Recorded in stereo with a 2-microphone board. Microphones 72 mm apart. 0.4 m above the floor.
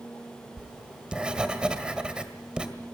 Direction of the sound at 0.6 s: 15° right (ahead or behind).